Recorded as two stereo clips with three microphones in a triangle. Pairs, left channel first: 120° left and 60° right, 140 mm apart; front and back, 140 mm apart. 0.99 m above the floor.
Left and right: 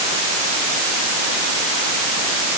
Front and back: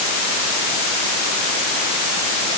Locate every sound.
Only background noise.